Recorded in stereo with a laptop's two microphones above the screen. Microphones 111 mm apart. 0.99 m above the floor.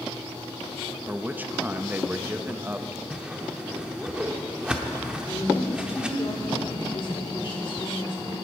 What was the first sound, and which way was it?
A man speaking, 15° right (ahead or behind).